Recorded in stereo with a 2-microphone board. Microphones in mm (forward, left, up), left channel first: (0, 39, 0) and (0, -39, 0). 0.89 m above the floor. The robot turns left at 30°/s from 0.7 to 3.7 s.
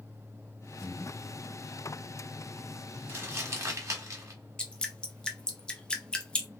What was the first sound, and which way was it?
Breathing, 35° left (ahead or behind).